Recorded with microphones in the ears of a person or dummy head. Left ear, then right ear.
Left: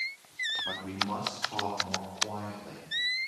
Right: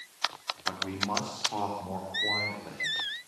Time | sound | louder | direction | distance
0.7 | a man speaking | right 1 dB | 10° right (ahead or behind) | 4 m